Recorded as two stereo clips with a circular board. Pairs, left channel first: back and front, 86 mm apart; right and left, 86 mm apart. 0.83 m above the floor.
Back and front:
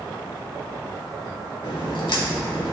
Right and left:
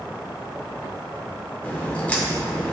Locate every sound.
1.6 s a crack: 160° right, 1.7 m